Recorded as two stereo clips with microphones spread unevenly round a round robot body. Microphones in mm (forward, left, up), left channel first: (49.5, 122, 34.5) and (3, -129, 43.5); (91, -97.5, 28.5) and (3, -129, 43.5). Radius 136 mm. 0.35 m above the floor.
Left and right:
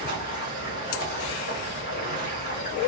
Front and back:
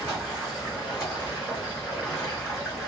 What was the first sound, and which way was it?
Running water, 120° left.